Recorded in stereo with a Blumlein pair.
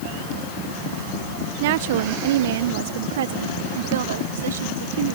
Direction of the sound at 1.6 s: 50° right.